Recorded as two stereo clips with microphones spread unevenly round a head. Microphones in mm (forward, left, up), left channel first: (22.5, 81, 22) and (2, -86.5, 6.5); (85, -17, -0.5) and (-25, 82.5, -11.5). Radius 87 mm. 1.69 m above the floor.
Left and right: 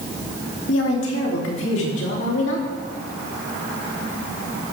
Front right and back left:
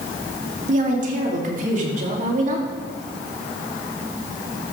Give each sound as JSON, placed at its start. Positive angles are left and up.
{"t": 0.7, "sound": "a woman speaking", "azimuth_deg": 105, "distance_m": 3.0}